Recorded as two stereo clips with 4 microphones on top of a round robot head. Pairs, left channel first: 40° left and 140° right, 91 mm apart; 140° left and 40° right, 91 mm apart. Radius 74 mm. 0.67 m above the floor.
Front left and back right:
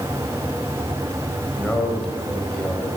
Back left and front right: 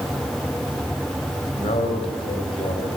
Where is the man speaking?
125° left, 4.5 m.